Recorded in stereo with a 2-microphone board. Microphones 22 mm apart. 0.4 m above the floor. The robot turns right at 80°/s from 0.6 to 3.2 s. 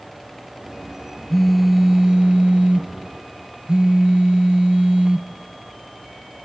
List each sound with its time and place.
1.3 s a phone buzzing: 160° left, 1.0 m; by 5.3 s 50° right, 1.0 m